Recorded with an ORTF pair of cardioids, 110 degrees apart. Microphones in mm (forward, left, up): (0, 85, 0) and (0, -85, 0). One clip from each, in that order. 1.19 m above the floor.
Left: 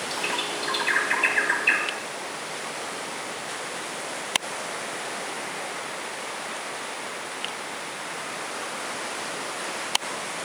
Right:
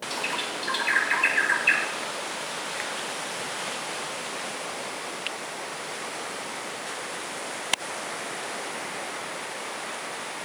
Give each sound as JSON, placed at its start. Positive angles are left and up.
{"t": 0.1, "sound": "a bird", "azimuth_deg": 0, "distance_m": 4.0}